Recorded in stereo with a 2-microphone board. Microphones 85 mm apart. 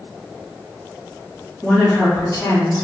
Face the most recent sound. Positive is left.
turn(degrees=45)  # may be behind; listen again after turning